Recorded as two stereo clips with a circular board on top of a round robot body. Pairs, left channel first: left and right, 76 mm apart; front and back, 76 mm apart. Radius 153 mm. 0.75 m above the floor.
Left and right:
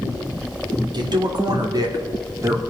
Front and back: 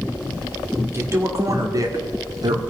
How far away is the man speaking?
About 2.5 m.